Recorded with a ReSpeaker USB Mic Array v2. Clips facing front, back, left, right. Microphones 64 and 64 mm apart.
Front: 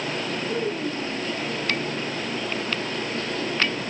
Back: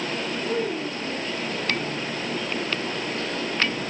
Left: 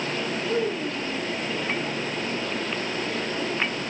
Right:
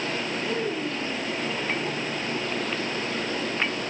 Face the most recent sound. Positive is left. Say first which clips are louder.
# back 1 dB, left 3 dB
turn(degrees=-140)